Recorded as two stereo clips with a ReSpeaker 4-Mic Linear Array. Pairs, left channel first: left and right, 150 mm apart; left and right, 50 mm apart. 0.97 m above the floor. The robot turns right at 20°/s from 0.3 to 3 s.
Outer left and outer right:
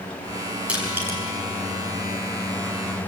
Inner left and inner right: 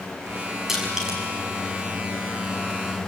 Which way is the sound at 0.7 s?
10° right (ahead or behind).